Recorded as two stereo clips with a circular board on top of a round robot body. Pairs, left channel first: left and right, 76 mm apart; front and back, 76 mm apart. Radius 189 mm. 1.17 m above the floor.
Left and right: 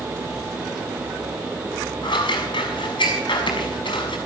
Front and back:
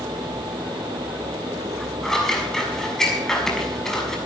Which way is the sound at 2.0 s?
85° left.